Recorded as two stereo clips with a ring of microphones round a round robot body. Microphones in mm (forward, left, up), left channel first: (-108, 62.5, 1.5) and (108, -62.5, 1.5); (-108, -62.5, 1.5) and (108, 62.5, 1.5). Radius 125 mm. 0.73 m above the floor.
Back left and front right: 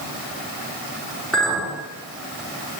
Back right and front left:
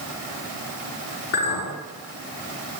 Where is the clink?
120° right, 7 m.